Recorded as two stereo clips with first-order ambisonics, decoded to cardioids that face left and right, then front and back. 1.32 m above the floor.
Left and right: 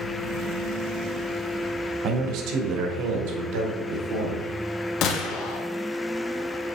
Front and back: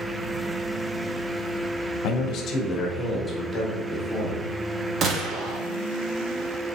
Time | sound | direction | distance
2.0 | a man speaking | 35° right | 1.2 m
5.0 | a gunshot | 125° left | 1.2 m